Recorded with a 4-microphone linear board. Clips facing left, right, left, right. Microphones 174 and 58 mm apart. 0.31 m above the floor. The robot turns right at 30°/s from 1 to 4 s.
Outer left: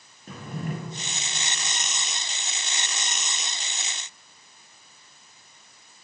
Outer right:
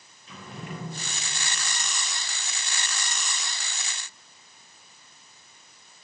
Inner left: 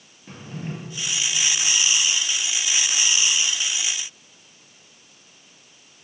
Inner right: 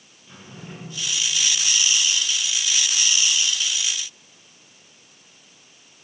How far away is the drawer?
About 2 m.